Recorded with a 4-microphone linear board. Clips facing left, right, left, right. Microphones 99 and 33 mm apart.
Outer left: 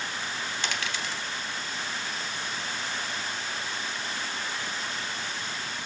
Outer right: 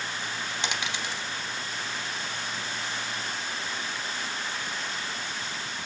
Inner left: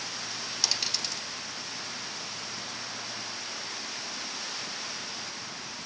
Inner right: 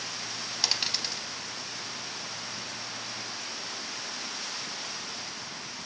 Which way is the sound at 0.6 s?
20° right (ahead or behind).